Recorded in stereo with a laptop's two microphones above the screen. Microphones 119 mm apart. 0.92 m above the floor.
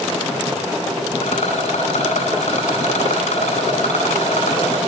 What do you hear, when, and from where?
1.2 s a rattle: 70° left (ahead or behind), 10 m